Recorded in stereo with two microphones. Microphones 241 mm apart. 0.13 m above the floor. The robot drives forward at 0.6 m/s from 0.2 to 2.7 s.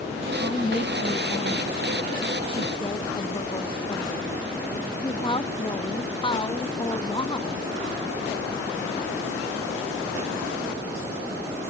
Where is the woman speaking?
25° left (ahead or behind); by 7.7 s 20° left (ahead or behind).